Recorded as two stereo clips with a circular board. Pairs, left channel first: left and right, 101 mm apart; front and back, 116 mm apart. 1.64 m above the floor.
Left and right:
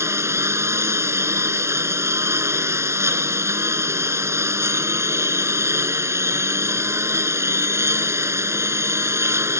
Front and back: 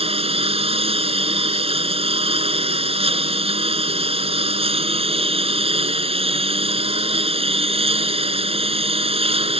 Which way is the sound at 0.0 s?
150° right.